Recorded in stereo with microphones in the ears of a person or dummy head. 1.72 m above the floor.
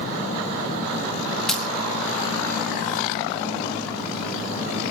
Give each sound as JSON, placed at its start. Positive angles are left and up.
{"t": 1.5, "sound": "breaking glass", "side_deg": 0, "distance_m": 3.5}